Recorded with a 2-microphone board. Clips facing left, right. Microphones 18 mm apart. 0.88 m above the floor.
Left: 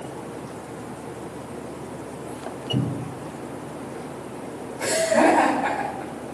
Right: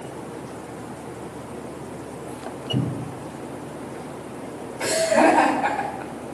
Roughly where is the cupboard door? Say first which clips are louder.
Even; right.